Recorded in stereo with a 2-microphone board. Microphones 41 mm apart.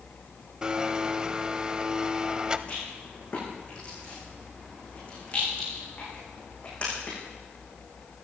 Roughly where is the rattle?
Left.